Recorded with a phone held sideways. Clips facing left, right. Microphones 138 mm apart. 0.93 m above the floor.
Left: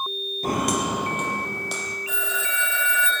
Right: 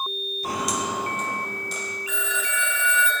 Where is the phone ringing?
35° left (ahead or behind), 4.5 m.